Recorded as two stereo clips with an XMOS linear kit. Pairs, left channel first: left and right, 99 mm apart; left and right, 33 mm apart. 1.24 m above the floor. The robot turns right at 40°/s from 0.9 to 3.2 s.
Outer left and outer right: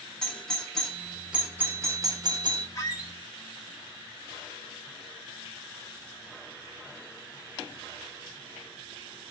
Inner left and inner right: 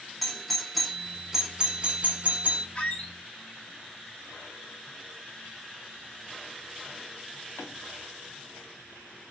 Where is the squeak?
35° left (ahead or behind), 0.9 m; by 3.1 s 45° left (ahead or behind), 0.9 m.